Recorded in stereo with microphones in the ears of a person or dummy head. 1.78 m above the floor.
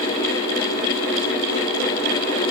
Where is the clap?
I don't hear a clap.